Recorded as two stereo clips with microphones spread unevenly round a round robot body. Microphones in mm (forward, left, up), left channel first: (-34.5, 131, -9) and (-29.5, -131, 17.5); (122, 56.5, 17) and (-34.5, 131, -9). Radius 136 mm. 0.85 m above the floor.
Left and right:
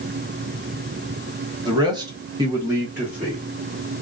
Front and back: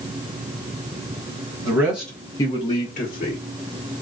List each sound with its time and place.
1.6 s a man speaking: 160° right, 1.0 m; by 3.4 s straight ahead, 1.3 m